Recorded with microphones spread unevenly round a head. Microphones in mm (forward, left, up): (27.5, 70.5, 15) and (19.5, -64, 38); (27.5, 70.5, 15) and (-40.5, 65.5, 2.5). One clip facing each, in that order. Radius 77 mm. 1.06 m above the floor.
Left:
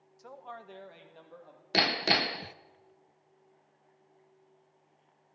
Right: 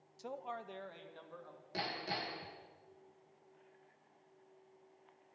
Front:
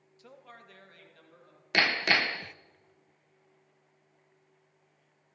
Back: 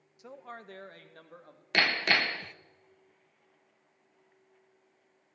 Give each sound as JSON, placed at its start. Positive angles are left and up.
{"t": 0.2, "sound": "a man speaking", "azimuth_deg": -140, "distance_m": 0.8}
{"t": 1.7, "sound": "hammering", "azimuth_deg": 90, "distance_m": 0.6}